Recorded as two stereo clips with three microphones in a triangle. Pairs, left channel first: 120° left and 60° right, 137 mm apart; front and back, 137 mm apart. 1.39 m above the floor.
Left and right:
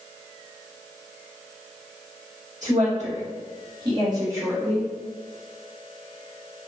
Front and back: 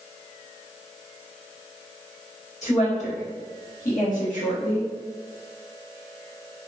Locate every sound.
2.6 s a woman speaking: 35° right, 1.3 m; by 4.9 s 25° left, 1.0 m